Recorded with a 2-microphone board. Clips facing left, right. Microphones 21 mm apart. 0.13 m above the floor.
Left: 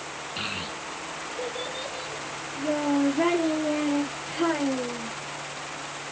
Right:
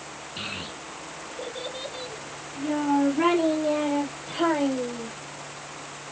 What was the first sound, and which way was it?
A child speaking, 20° left (ahead or behind).